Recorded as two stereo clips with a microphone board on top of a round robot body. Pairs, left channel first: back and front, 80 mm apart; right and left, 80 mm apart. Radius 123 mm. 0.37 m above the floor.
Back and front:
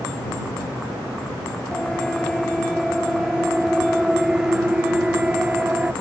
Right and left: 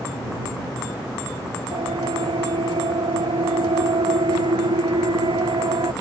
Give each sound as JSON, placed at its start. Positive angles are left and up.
{"t": 1.7, "sound": "a siren", "azimuth_deg": 95}